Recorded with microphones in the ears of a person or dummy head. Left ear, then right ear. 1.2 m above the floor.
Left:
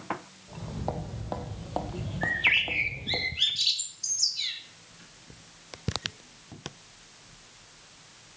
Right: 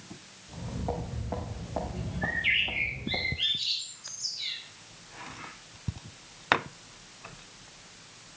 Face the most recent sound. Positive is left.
turn(degrees=70)  # may be behind; listen again after turning